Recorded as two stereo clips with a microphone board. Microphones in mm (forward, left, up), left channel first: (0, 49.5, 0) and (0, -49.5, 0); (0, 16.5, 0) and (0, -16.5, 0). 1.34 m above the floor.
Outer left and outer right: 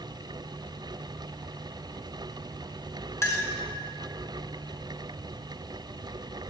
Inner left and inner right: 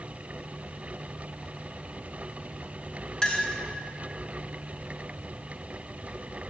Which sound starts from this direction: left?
A clink, at 3.2 s.